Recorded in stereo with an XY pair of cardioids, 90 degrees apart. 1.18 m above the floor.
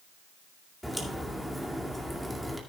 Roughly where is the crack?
Ahead.